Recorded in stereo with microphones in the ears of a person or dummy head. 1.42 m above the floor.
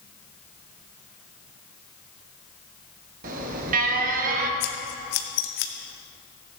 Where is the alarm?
50° right (ahead or behind), 1.0 m.